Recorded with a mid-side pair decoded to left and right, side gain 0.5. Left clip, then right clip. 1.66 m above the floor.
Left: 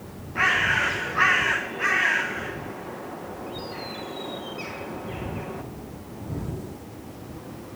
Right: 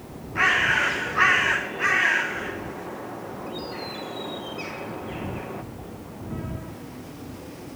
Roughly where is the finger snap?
I don't hear a finger snap.